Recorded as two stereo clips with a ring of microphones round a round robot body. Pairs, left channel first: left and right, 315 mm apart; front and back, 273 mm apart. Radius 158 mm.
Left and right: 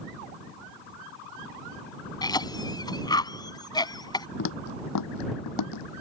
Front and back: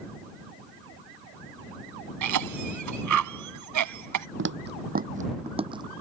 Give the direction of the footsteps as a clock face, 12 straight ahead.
7 o'clock.